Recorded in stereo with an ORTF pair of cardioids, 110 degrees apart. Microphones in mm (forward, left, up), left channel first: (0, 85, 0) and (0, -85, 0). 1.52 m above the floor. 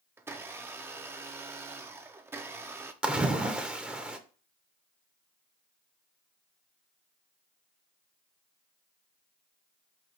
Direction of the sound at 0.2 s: 15° right.